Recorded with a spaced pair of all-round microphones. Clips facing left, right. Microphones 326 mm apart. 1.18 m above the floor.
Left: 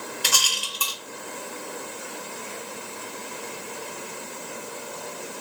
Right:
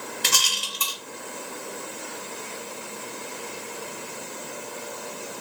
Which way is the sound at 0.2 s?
30° right (ahead or behind).